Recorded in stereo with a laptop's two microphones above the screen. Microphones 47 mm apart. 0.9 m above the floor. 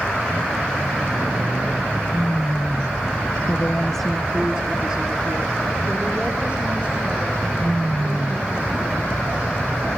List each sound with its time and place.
3.5 s a woman speaking: 45° left (ahead or behind), 0.7 m; by 9.7 s 30° right (ahead or behind), 9 m